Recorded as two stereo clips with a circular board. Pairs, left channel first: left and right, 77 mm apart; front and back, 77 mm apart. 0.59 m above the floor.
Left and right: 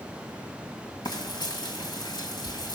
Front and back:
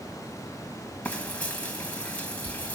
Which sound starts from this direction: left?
Frying, at 1.1 s.